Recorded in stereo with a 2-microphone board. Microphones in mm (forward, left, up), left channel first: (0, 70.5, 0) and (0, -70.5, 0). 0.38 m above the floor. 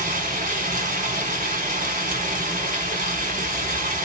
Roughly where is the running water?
Right.